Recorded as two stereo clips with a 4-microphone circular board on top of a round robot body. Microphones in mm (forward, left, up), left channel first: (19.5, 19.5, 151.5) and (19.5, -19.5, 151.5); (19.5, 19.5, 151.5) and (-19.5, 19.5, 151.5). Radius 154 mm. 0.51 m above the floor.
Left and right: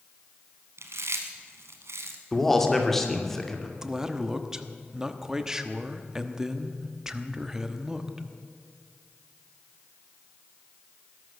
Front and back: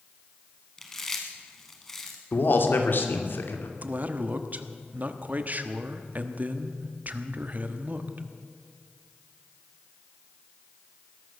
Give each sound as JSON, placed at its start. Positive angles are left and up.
{"t": 0.8, "sound": "chewing", "azimuth_deg": -80, "distance_m": 0.9}
{"t": 2.3, "sound": "a man speaking", "azimuth_deg": 10, "distance_m": 2.5}
{"t": 3.8, "sound": "a man speaking", "azimuth_deg": -160, "distance_m": 1.3}